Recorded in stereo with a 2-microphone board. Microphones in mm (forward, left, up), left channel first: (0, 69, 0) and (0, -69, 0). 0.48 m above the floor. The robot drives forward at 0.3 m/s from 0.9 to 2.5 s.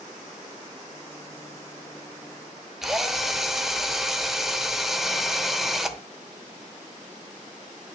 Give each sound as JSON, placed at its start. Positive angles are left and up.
{"t": 2.8, "sound": "a drill", "side_deg": 0, "distance_m": 1.0}